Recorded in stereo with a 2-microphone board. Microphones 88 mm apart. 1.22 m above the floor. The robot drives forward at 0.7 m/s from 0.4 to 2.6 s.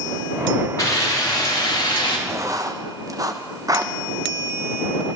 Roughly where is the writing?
Right.